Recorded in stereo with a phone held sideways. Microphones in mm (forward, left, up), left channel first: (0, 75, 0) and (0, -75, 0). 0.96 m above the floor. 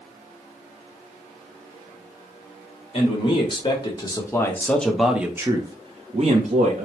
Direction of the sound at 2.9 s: 40° left (ahead or behind).